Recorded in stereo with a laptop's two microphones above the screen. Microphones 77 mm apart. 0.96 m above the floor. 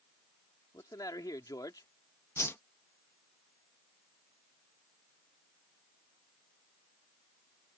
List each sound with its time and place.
0.7 s a man speaking: 55° left (ahead or behind)
2.4 s a whoosh: 35° left (ahead or behind)